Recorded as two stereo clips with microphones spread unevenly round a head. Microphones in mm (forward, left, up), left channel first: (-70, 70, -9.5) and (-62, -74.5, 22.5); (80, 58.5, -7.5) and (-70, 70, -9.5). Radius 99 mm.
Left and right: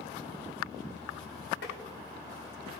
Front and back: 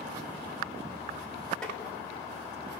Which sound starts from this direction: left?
Tapping, at 1.6 s.